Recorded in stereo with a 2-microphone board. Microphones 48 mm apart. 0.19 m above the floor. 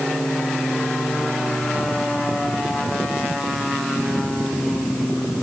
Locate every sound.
Only background noise.